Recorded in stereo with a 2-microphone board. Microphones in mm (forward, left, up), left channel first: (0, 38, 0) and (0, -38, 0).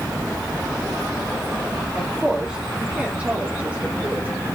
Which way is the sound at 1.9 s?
5° right (ahead or behind).